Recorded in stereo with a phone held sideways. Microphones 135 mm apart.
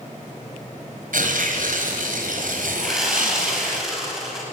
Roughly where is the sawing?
Centre.